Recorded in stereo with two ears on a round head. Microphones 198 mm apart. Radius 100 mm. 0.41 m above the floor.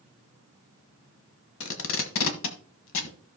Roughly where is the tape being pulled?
Left.